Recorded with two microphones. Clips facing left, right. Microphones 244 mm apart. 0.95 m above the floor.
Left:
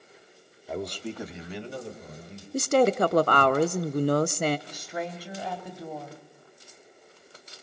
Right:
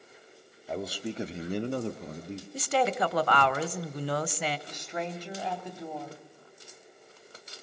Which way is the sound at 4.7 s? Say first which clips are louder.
Left 1 dB; 10° left (ahead or behind).